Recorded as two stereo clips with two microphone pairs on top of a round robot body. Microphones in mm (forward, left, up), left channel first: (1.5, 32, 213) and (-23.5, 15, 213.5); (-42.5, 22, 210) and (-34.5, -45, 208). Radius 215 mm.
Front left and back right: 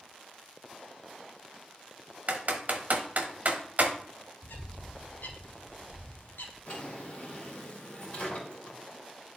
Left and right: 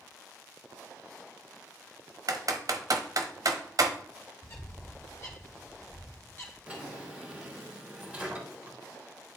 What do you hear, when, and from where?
2.3 s typing on a keyboard: 110° right, 1.0 m
4.4 s a bird: 45° left, 1.3 m
6.7 s a drawer: 10° right, 3 m